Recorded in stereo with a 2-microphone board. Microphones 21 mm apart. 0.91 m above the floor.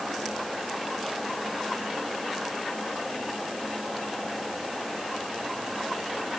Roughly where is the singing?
No singing in this recording.